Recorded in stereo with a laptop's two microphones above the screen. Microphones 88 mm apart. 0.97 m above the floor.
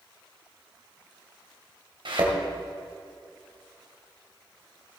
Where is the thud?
65° right (ahead or behind), 2 m.